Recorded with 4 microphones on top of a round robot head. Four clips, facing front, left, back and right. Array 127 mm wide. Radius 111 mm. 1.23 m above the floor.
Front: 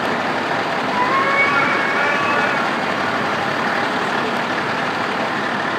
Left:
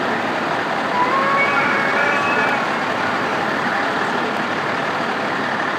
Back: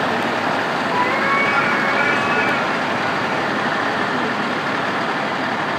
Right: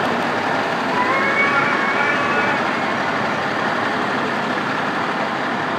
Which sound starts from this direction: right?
A cat meowing, at 0.9 s.